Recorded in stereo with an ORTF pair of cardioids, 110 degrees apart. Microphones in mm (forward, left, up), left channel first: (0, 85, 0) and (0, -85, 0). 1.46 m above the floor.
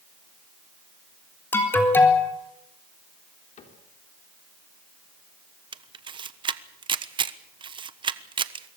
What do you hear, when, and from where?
1.5 s an alarm: 15° left, 4 m
3.6 s a cupboard door: 50° left, 4 m
5.7 s a camera shutter: 30° right, 1.2 m